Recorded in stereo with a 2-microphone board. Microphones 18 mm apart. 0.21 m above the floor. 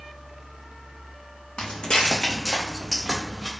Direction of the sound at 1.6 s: 65° left (ahead or behind).